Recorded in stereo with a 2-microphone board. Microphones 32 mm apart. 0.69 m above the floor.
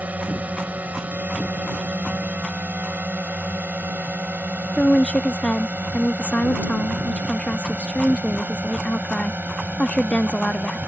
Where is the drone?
60° right (ahead or behind); by 10.9 s 75° right (ahead or behind).